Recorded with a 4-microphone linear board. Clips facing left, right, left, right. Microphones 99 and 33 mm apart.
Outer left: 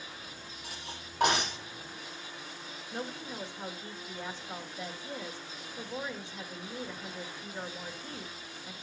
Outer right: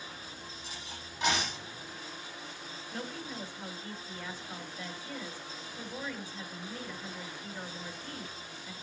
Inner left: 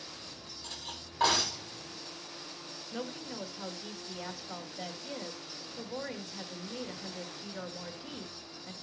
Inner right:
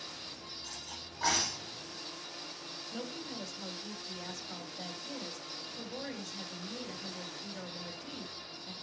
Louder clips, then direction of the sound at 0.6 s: Outer left 1 dB, inner left 6 dB; 65° left (ahead or behind).